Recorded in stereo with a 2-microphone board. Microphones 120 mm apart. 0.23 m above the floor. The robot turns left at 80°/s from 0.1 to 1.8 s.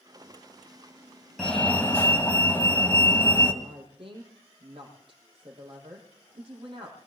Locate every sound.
1.4 s a fire alarm: 5° left (ahead or behind), 2 m; by 3.5 s 15° left (ahead or behind), 2 m
3.6 s a woman speaking: 45° right (ahead or behind), 6.5 m